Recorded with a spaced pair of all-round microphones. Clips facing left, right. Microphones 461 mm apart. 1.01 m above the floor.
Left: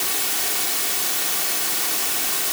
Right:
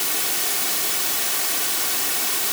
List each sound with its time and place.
Only background noise.